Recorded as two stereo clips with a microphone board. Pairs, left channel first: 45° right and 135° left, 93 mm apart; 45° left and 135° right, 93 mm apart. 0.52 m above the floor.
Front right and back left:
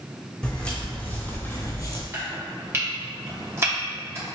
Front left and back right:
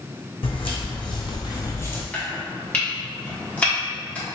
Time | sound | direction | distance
0.4 | footsteps | 35° left | 1.5 m
2.1 | chopping | 105° left | 1.1 m